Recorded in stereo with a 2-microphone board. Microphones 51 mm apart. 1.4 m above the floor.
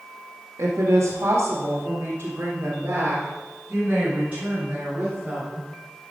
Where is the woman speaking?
75° right (ahead or behind), 2.5 m; by 5.7 s 25° right (ahead or behind), 8 m.